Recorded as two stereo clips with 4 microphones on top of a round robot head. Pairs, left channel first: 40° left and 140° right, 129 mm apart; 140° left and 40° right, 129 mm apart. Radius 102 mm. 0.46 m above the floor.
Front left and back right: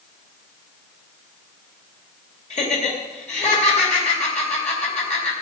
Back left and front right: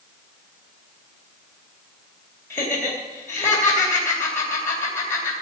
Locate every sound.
2.5 s laughter: 70° left, 3.5 m